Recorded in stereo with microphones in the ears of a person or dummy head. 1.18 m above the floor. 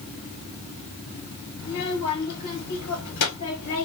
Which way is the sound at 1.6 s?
65° left (ahead or behind).